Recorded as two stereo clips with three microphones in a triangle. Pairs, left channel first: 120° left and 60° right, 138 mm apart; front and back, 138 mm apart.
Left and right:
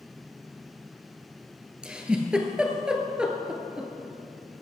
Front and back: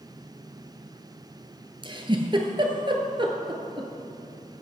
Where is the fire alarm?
No fire alarm in this recording.